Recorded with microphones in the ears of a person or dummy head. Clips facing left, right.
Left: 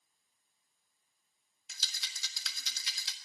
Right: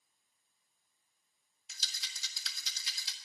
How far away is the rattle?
About 1.4 m.